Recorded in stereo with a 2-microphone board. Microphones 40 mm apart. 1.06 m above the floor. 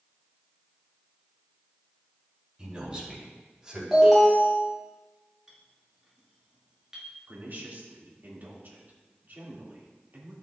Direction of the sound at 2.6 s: 25° right (ahead or behind).